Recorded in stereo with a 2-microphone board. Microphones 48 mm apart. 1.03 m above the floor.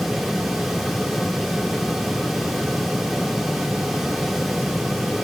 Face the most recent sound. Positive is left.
No sound to turn to.